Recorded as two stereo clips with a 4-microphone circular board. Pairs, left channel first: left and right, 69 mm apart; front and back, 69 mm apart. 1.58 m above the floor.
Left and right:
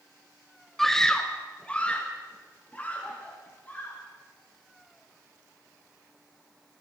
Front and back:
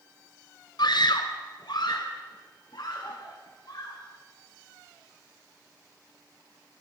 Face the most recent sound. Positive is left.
turn(degrees=25)